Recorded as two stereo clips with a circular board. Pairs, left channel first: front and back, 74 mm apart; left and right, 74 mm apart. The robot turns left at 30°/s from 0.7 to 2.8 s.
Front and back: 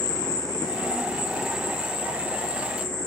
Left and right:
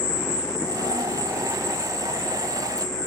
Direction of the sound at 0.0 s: 15° right.